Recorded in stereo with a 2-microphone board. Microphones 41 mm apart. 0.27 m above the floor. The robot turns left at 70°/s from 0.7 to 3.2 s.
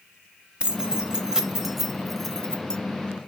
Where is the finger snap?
I don't hear a finger snap.